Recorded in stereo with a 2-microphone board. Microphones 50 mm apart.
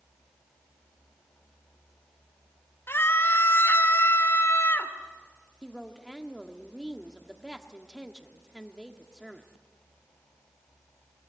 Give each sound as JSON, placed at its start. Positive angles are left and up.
{"t": 2.9, "sound": "a scream", "side_deg": 50, "distance_m": 2.0}
{"t": 5.6, "sound": "a woman speaking", "side_deg": 0, "distance_m": 1.3}